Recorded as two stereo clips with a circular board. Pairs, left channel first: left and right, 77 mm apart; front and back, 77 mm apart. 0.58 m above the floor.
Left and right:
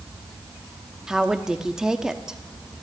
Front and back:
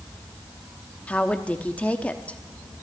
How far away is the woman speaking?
About 1.0 m.